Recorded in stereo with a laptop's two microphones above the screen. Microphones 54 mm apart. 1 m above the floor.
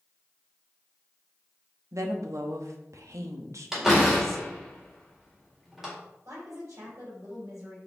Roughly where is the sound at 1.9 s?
Right.